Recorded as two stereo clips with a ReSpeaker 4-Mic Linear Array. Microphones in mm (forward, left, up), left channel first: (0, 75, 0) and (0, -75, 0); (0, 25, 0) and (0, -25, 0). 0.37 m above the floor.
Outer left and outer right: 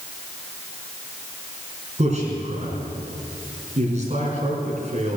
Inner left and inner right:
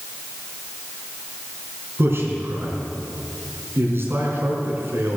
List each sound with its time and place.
2.0 s a man speaking: 50° right (ahead or behind), 4.5 m